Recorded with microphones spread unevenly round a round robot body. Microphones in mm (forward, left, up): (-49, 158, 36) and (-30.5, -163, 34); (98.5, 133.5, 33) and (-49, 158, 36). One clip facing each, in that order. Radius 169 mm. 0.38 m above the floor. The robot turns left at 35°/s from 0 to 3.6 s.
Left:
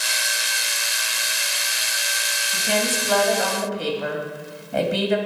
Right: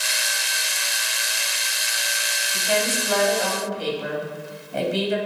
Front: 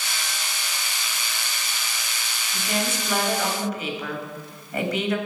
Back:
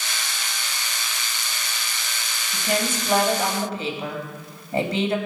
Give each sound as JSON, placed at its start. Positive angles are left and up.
{"t": 2.5, "sound": "a woman speaking", "azimuth_deg": 150, "distance_m": 2.5}